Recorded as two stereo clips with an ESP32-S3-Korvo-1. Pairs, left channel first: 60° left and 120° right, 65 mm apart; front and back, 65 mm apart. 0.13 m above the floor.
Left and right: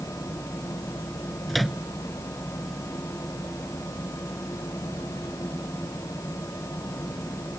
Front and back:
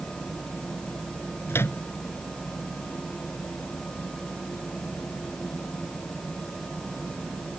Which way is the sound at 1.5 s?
30° right.